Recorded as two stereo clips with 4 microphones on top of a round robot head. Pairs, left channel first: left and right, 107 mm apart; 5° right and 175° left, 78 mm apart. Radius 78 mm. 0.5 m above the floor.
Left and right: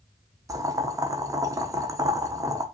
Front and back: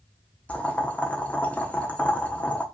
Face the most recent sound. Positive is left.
turn(degrees=-65)